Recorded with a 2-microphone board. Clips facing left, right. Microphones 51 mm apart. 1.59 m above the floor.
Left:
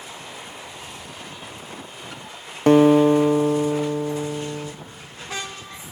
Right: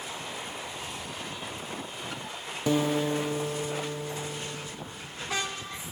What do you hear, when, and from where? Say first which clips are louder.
2.7 s a guitar: left 13 dB; 50° left (ahead or behind), 0.6 m